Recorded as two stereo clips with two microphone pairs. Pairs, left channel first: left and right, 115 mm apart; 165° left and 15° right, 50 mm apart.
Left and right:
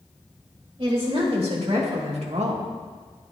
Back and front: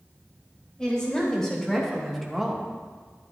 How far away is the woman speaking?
About 3 m.